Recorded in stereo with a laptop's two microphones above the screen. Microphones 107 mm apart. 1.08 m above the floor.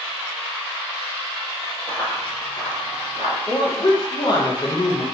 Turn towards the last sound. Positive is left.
turn(degrees=40)  # may be behind; listen again after turning